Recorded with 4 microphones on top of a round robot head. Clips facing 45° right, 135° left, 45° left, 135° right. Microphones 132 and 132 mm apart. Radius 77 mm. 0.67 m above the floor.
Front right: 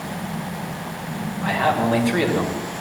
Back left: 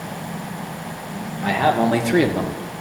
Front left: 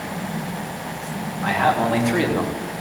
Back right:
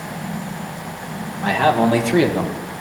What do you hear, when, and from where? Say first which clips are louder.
1.4 s a man speaking: back left 3 dB, back right 3 dB; 175° left, 2.5 m; by 2.8 s 160° left, 1.2 m